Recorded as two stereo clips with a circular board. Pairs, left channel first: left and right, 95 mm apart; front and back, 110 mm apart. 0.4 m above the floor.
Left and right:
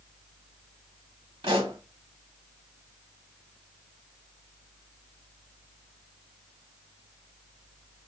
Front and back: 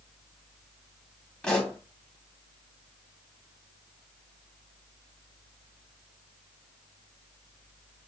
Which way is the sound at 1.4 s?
80° right.